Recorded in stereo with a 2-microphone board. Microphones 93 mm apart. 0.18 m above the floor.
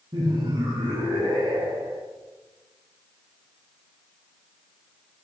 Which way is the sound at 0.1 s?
50° right (ahead or behind).